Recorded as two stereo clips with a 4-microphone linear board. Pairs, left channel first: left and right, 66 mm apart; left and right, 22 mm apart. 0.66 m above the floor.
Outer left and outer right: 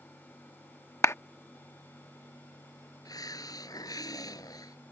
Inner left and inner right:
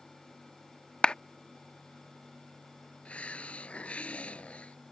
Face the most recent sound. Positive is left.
turn(degrees=80)